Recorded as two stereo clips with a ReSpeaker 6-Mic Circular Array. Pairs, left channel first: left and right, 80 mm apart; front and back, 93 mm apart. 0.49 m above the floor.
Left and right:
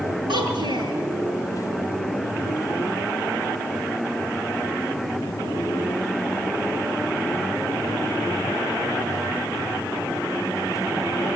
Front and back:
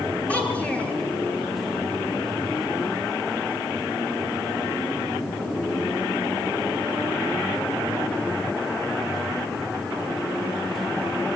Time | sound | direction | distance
0.3 | a child speaking | 75° right | 5.5 m